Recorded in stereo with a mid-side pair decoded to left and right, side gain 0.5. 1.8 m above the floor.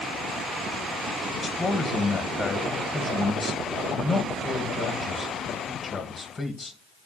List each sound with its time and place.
1.3 s a man speaking: 30° left, 2 m